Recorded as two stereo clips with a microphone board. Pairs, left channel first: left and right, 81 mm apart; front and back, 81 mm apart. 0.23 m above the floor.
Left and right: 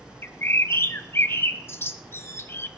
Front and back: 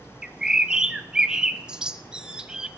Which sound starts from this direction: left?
A bird, at 0.2 s.